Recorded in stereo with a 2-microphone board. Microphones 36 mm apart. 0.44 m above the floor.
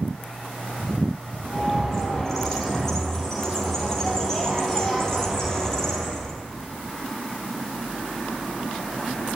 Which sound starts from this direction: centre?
A bird, at 1.4 s.